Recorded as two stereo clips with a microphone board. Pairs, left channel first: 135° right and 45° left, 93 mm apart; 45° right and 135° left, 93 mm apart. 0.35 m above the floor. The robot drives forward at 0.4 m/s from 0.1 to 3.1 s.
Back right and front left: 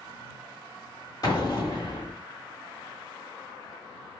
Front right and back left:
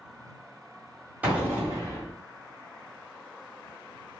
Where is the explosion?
160° right, 1.2 m; by 2.1 s 165° right, 1.4 m.